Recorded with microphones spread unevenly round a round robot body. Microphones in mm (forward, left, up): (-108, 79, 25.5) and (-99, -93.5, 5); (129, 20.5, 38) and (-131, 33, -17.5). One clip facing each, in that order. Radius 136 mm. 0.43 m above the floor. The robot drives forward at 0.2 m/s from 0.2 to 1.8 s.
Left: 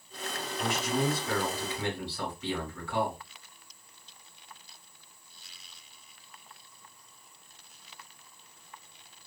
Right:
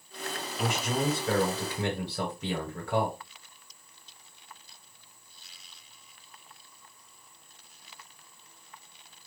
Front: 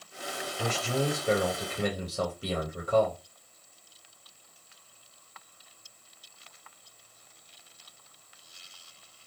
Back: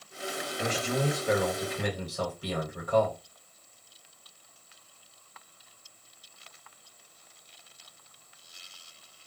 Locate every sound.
0.6 s a man speaking: 60° right, 1.7 m; by 3.2 s 70° right, 1.6 m